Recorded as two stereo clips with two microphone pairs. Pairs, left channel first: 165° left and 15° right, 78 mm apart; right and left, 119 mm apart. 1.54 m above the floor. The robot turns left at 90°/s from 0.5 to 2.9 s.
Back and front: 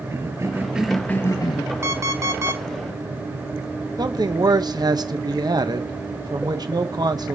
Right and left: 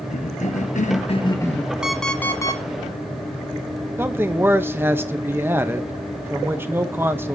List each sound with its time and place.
0.1 s a cough: 75° right, 1.2 m; by 1.7 s straight behind, 1.2 m
1.8 s an alarm clock: 10° left, 1.0 m; by 2.6 s 60° right, 1.0 m
4.0 s a man speaking: 20° left, 0.8 m